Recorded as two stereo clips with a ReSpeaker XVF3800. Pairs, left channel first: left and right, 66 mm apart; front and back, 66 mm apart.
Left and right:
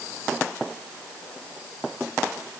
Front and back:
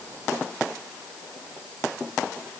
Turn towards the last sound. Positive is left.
No sound to turn to.